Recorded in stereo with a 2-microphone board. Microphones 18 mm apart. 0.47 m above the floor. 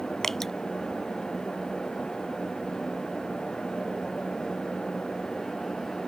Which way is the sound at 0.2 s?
30° left (ahead or behind).